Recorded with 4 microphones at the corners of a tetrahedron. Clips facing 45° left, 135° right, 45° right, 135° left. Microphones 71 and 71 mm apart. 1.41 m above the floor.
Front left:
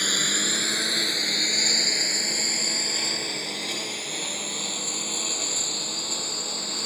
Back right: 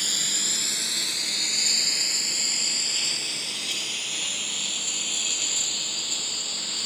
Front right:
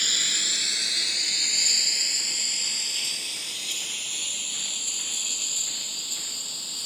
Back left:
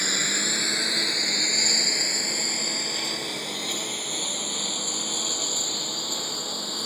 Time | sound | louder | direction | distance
0.0 | a lawn mower | front left 7 dB, back left 4 dB | 80° left | ?